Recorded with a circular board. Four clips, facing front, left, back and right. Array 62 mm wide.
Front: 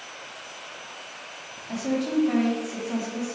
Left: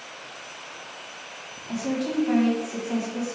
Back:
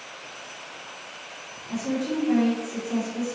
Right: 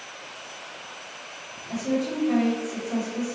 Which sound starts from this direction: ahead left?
A woman speaking, at 1.7 s.